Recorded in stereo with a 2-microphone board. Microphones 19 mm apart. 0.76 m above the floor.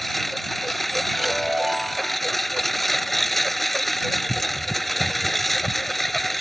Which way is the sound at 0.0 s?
5° left (ahead or behind).